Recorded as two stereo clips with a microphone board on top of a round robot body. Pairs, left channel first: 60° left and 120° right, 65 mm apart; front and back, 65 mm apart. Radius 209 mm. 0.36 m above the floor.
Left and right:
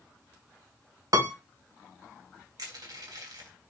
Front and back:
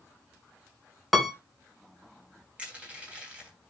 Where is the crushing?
105° right, 3 m.